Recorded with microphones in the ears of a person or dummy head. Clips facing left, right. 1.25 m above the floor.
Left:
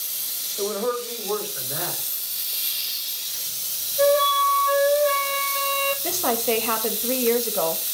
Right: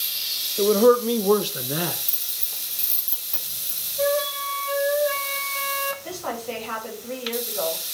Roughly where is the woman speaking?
Left.